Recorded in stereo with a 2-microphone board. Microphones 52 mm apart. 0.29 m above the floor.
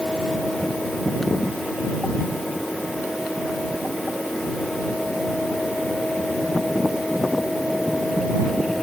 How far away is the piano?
I don't hear a piano.